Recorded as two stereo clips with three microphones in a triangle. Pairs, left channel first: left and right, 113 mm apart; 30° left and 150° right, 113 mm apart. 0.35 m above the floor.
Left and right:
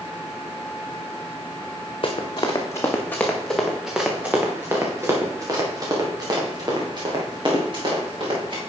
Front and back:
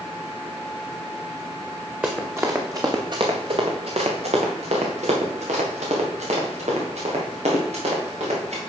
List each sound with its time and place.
2.0 s running footsteps: 135° left, 1.5 m; by 8.6 s 135° right, 4.5 m